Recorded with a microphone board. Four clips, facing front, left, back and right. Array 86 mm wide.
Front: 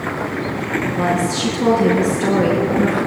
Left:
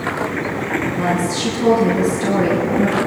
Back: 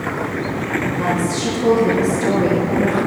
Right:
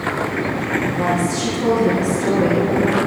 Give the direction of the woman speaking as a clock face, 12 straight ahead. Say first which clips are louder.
Even, front 3 dB; 12 o'clock.